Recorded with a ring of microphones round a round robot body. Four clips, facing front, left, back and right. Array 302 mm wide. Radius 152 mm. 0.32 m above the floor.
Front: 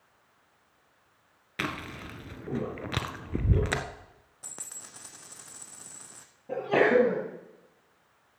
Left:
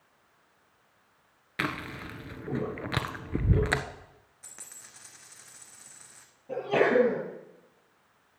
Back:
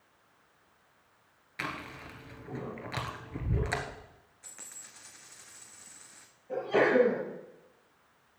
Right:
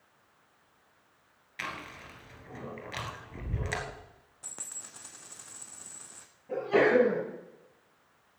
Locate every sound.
1.6 s chewing: 50° left, 1.2 m
4.4 s a dropped coin: 25° right, 1.7 m
6.5 s a sneeze: 10° left, 8 m